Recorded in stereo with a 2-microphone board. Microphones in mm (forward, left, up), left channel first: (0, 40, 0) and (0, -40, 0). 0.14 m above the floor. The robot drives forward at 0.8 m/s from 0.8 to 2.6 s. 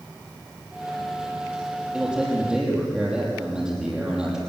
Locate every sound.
1.9 s a man speaking: 10° right (ahead or behind), 5 m